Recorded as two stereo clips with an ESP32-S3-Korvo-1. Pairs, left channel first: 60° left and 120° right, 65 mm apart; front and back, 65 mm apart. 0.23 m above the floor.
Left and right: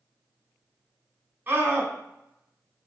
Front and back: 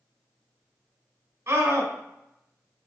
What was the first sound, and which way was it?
A scream, 170° right.